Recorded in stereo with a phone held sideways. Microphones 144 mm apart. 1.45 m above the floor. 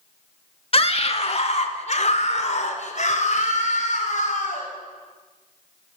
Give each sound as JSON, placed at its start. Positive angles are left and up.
{"t": 0.7, "sound": "a scream", "side_deg": 40, "distance_m": 1.8}